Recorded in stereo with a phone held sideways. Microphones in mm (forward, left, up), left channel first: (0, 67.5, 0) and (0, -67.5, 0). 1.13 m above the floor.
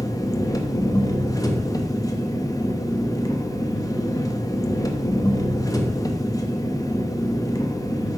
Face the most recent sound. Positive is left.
turn(degrees=25)  # may be behind; listen again after turning